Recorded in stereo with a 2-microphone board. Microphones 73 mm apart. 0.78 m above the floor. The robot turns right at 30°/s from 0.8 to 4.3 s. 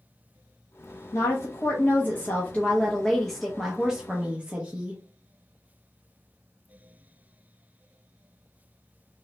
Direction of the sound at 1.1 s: 110° left.